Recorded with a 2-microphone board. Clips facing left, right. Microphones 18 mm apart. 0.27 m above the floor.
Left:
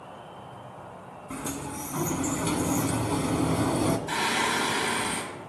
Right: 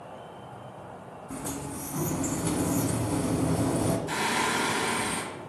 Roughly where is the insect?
Left.